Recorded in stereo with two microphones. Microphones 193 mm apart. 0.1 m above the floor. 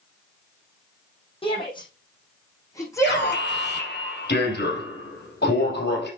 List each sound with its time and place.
1.4 s a shout: 30° left (ahead or behind), 4 m; by 3.4 s 10° left (ahead or behind), 5 m
3.0 s an alarm: 60° left (ahead or behind), 4.5 m